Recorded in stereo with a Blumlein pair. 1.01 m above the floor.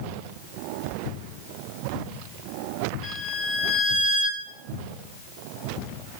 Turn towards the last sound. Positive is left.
turn(degrees=30)